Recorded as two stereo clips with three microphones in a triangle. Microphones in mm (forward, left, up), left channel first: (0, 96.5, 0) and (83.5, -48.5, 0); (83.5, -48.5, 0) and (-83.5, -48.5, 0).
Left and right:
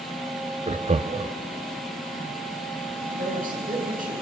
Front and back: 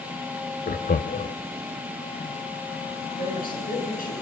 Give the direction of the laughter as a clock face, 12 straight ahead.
1 o'clock.